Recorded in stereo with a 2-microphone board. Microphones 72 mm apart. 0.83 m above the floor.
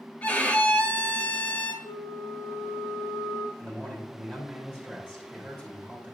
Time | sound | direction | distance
0.2 | a violin | 20° left (ahead or behind) | 1.0 m
1.8 | a flute | 85° left | 1.5 m
3.6 | a man speaking | 15° left (ahead or behind) | 3 m